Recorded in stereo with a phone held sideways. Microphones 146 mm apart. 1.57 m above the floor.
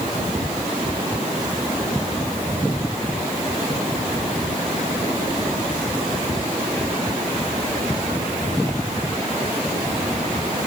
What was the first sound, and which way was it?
Only background noise.